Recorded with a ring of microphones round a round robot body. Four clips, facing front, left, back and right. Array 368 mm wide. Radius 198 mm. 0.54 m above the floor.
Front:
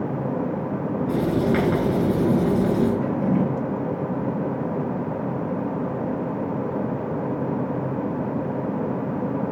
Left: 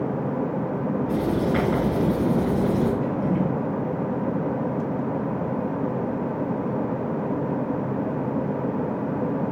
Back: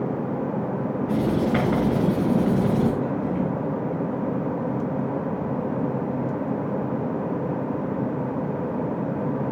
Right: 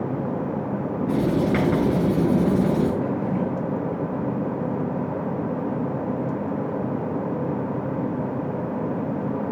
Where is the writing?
55° right, 7 m.